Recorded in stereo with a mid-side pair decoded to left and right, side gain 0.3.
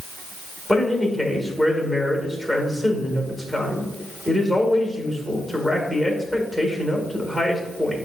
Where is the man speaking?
5° right, 2 m.